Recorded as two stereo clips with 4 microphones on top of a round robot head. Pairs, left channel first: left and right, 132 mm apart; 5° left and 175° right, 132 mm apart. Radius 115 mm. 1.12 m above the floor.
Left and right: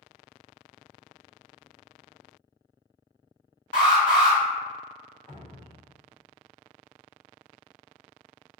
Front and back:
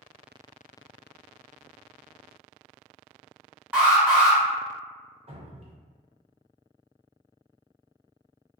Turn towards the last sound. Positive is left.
turn(degrees=160)